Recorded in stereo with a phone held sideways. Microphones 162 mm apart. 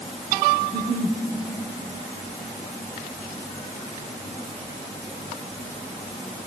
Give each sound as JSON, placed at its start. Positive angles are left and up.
{"t": 0.6, "sound": "a giggle", "side_deg": -25, "distance_m": 2.5}